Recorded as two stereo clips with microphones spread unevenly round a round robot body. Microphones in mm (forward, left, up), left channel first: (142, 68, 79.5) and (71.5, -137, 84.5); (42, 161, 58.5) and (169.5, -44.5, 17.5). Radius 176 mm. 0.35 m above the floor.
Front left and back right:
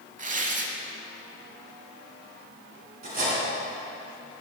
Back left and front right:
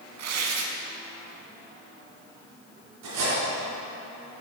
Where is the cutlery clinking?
60° right, 2.5 m.